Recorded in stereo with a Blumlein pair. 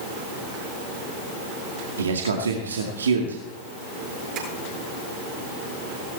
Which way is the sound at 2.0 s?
70° right.